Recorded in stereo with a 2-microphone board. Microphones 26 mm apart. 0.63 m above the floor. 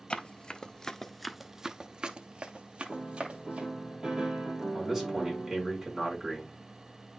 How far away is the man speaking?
About 5.5 m.